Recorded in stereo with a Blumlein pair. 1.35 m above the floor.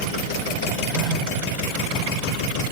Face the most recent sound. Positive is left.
turn(degrees=20)